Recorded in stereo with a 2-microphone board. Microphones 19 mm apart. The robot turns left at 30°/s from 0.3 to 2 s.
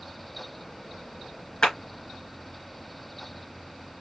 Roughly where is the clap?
Left.